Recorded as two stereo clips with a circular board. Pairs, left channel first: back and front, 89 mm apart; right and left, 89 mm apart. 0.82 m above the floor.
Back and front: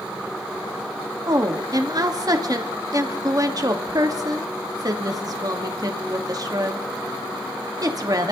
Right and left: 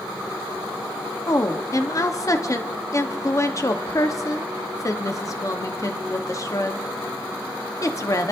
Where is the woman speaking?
40° right, 1.0 m.